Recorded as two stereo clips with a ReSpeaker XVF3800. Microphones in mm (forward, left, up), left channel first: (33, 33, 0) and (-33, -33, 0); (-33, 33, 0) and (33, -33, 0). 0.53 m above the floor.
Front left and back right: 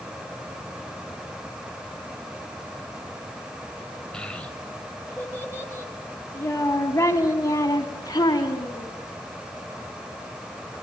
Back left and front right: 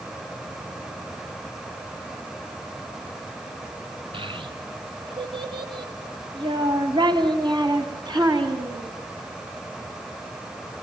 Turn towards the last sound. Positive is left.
turn(degrees=-5)